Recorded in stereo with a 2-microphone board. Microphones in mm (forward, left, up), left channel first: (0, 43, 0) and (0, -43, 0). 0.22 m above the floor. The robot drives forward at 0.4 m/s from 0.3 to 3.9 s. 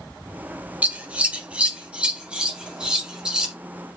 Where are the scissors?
20° right (ahead or behind), 0.7 m; by 3.5 s 10° right (ahead or behind), 1.5 m.